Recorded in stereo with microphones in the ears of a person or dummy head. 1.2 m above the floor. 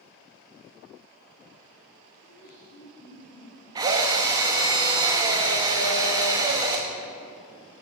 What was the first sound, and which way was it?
Laughter, 60° left (ahead or behind).